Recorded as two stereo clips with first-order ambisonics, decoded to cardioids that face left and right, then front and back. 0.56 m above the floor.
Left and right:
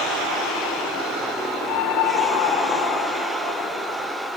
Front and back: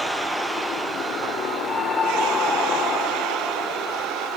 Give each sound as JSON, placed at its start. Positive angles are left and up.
{"t": 1.6, "sound": "a scream", "azimuth_deg": 75}